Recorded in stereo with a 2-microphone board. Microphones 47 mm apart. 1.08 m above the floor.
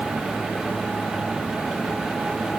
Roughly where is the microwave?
I don't hear a microwave.